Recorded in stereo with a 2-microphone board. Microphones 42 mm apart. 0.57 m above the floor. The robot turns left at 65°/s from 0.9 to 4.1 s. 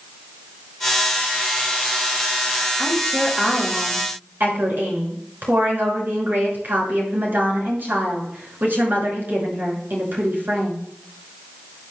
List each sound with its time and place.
2.8 s a woman speaking: 35° left, 6 m; by 10.8 s 50° right, 6 m